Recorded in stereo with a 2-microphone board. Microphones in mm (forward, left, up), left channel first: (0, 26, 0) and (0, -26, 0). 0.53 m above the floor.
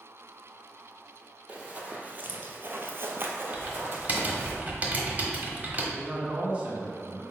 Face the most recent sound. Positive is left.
turn(degrees=-25)  # may be behind; listen again after turning